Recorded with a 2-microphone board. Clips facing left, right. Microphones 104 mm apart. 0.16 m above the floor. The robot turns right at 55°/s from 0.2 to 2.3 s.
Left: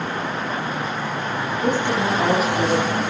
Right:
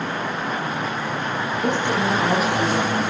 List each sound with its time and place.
1.6 s a woman speaking: 5° left, 5.5 m; by 3.0 s 40° left, 5.5 m